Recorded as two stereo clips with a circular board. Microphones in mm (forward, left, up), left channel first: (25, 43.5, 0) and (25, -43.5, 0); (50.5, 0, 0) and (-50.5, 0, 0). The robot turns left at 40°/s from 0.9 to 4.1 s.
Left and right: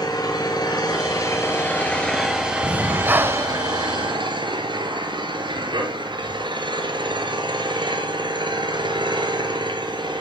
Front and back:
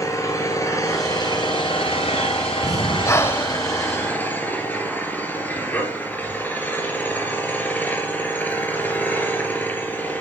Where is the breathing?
20° right, 0.8 m; by 3.6 s 55° right, 0.8 m.